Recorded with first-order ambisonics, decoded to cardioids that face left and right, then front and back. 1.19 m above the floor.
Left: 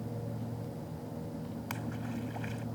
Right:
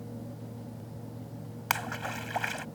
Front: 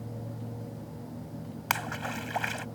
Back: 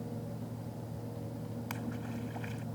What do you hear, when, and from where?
1.7 s a splash: 40° right